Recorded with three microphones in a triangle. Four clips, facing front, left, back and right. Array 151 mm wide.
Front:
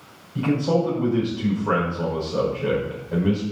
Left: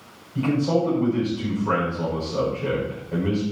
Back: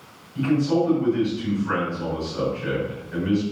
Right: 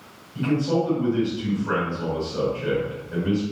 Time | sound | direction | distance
0.3 | a man speaking | 25° left | 8 m